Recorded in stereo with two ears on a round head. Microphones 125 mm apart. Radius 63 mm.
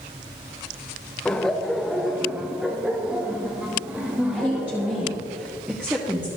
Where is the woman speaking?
10° right (ahead or behind), 1.0 m.